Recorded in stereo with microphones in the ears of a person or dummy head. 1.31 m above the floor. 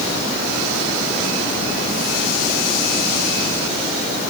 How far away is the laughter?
No laughter in this recording.